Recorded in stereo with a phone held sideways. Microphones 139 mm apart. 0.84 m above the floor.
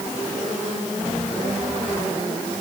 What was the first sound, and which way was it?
Only background noise.